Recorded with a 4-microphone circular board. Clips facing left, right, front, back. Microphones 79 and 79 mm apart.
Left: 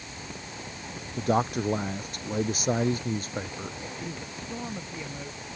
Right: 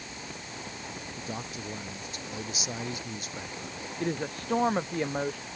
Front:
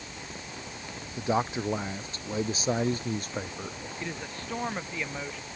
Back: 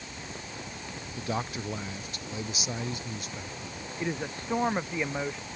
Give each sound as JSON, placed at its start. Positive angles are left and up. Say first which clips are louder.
{"t": 1.2, "sound": "a man speaking", "louder": "left 16 dB, front 6 dB", "azimuth_deg": 70}
{"t": 4.0, "sound": "a woman speaking", "louder": "right 6 dB, back 6 dB", "azimuth_deg": -110}